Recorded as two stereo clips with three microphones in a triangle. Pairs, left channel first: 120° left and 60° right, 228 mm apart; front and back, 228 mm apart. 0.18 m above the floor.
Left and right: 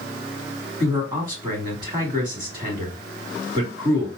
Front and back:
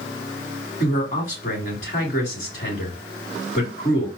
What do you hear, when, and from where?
0.8 s a man speaking: 10° right, 1.2 m